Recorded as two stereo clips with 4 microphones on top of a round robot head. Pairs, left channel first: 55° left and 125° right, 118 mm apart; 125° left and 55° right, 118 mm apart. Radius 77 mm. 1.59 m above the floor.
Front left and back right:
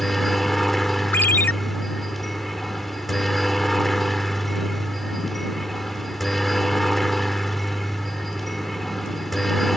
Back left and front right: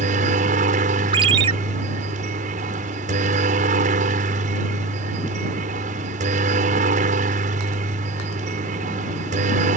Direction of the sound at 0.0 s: 35° right.